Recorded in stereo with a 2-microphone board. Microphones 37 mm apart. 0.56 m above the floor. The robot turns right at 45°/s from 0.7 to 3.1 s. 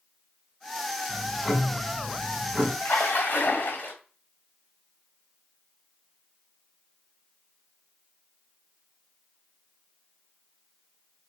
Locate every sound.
1.1 s ticking: 135° left, 1.1 m; by 2.7 s 150° right, 1.1 m
2.8 s a splash: 65° left (ahead or behind), 1.4 m; by 3.9 s 55° left (ahead or behind), 1.4 m